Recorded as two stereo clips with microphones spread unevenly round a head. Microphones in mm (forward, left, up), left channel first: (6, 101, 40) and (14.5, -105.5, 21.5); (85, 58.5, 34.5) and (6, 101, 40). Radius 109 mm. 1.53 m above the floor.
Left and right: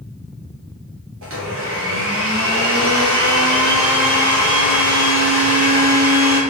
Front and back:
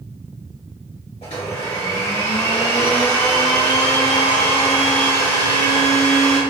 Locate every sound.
1.2 s a blender: 70° right, 0.9 m